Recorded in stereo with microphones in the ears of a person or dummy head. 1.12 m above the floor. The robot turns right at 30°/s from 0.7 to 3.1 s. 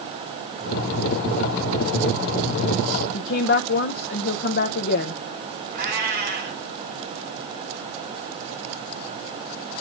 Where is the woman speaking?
50° left (ahead or behind), 0.7 m.